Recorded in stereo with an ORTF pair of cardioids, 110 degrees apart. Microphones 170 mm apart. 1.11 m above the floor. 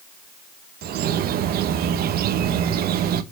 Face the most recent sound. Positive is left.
turn(degrees=-65)